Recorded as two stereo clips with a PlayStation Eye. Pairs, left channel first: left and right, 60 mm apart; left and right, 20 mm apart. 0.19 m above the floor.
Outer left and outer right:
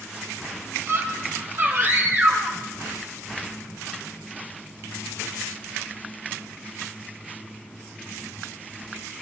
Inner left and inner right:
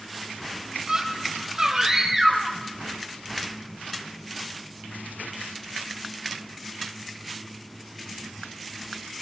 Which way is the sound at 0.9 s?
50° right (ahead or behind).